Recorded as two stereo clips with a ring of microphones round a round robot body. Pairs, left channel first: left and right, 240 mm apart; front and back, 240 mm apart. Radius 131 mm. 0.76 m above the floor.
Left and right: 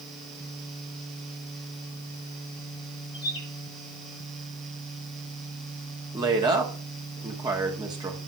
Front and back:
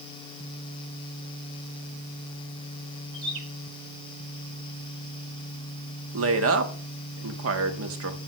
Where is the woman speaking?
165° right, 1.3 m.